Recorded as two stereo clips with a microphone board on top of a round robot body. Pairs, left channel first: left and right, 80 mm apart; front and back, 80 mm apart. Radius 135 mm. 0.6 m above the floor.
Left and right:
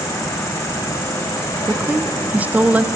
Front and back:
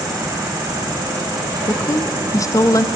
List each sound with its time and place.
0.0 s an insect: 135° left, 6 m
1.7 s a woman speaking: 25° right, 1.2 m